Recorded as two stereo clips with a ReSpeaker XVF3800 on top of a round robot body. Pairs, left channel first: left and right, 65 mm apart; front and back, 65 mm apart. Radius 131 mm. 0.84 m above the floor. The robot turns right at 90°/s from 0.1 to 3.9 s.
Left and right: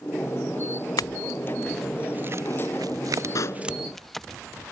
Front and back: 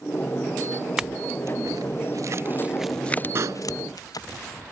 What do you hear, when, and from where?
1.0 s a clink: 100° left; by 4.3 s straight ahead
3.4 s a pop: 130° left; by 3.6 s 155° left